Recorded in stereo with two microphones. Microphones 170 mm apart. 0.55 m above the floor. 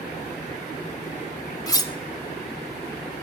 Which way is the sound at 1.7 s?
20° left (ahead or behind).